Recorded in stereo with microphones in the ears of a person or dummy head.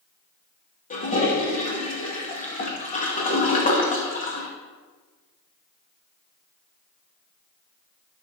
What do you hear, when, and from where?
0.9 s a toilet flushing: 40° left (ahead or behind), 2 m